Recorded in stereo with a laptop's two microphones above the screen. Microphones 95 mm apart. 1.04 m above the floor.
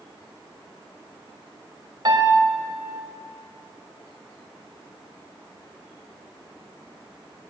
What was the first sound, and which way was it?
A piano, 45° right (ahead or behind).